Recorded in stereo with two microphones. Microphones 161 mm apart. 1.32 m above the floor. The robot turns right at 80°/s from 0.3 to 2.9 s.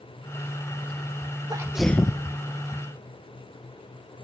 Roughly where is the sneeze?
Ahead right.